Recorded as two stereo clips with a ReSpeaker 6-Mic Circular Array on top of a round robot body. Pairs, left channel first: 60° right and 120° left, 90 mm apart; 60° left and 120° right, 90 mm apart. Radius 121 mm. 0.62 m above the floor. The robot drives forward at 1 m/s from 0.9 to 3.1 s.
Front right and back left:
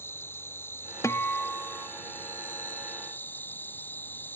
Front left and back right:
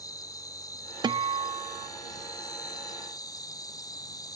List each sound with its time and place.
0.0 s an insect: 5° left; by 4.4 s 10° left
1.0 s a guitar: 110° right; by 1.9 s 150° right